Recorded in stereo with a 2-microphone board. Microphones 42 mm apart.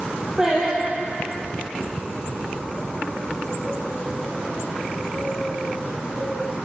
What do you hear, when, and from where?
0.4 s singing: 10° right (ahead or behind), 5 m